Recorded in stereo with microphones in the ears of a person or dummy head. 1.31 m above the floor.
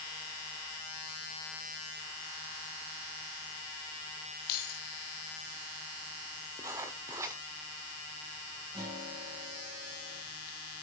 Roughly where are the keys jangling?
Left.